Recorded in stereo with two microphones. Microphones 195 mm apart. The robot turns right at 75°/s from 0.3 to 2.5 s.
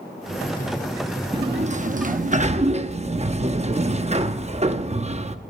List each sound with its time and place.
1.3 s a sliding door: 145° right, 0.8 m; by 5.4 s 55° right, 0.8 m